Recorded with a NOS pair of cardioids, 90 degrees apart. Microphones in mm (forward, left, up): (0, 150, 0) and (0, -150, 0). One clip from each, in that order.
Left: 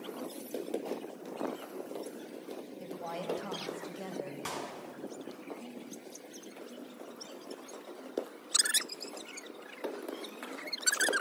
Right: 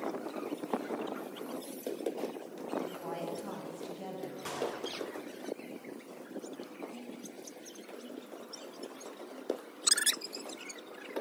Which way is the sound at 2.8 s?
35° left.